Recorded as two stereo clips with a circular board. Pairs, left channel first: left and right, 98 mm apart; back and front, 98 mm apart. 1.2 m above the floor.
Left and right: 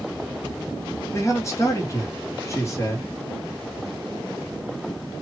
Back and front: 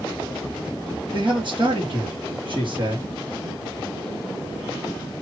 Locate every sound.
1.1 s a man speaking: 30° left, 2.5 m